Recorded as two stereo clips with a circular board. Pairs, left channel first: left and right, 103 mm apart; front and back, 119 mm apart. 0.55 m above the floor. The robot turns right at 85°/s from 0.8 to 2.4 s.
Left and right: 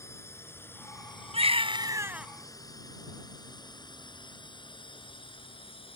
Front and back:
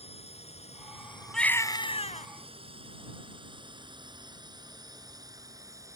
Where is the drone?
25° left; by 6.0 s 115° left.